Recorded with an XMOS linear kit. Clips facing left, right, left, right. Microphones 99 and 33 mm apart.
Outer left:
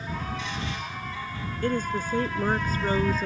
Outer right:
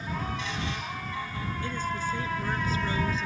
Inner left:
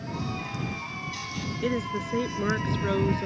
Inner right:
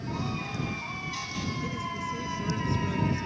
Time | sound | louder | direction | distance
1.6 | a woman speaking | outer left 6 dB, inner left 4 dB | 55° left (ahead or behind) | ?